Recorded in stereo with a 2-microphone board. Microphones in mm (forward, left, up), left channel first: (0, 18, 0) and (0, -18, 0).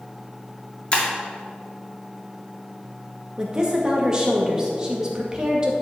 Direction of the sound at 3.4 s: 20° right (ahead or behind).